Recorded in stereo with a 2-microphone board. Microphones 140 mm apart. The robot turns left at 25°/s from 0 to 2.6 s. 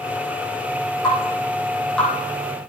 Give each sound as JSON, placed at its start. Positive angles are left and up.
{"t": 1.0, "sound": "dripping", "side_deg": 30, "distance_m": 5.0}